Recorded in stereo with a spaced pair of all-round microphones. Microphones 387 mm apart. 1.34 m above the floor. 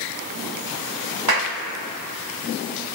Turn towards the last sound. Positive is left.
turn(degrees=-70)  # may be behind; listen again after turning